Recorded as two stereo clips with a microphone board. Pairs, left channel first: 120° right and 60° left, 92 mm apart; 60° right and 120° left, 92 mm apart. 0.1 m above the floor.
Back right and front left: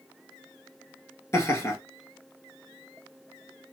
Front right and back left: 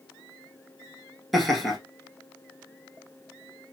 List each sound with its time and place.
1.3 s laughter: 150° right, 1.7 m